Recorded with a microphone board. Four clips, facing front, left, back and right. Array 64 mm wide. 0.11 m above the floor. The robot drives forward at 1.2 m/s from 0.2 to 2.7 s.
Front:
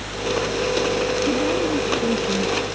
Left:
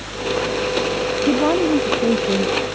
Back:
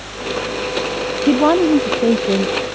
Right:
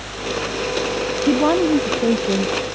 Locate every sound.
1.3 s a woman speaking: 175° right